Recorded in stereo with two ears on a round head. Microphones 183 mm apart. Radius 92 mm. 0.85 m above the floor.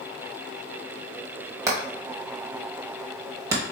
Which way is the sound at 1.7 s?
15° right (ahead or behind).